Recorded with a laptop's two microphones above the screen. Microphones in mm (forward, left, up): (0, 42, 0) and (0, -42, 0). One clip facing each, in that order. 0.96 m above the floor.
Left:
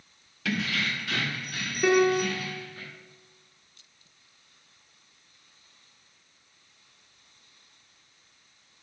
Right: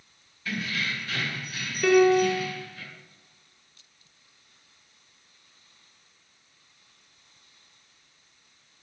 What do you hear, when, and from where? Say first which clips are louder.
0.5 s keys jangling: left 2 dB; 80° left, 0.7 m; by 2.8 s 40° left (ahead or behind), 1.8 m
1.8 s a piano: right 3 dB; 15° left (ahead or behind), 2 m